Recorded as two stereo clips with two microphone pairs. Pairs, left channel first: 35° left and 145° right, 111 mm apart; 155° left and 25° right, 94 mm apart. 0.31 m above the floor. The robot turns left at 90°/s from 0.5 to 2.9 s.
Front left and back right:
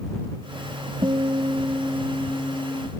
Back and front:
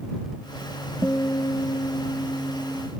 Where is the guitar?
140° right; by 2.9 s 55° left.